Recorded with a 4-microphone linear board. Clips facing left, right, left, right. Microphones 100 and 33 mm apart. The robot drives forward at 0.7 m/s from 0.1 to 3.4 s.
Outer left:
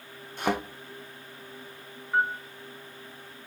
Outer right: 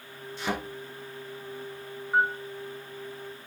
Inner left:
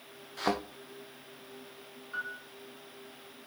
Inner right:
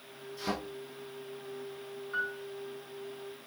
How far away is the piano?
About 2.5 m.